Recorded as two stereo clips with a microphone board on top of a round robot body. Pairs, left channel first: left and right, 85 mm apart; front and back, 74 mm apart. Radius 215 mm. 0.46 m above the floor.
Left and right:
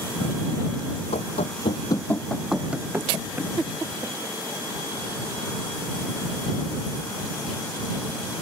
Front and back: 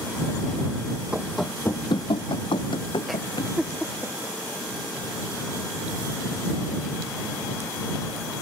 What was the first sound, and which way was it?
Running footsteps, 105° left.